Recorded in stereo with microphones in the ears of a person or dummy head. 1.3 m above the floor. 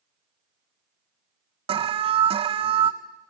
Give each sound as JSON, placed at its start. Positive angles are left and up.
{"t": 1.7, "sound": "an alarm", "side_deg": -30, "distance_m": 0.8}